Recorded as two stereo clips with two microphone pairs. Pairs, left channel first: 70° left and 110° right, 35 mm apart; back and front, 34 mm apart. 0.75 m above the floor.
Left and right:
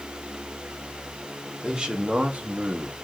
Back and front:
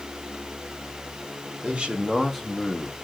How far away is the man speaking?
About 1.7 m.